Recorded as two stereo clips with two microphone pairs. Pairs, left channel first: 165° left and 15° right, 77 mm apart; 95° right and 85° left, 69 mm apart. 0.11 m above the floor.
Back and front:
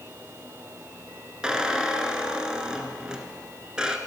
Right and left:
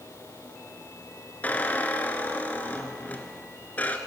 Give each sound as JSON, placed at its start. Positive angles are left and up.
{"t": 1.4, "sound": "a squeak", "azimuth_deg": -85, "distance_m": 0.8}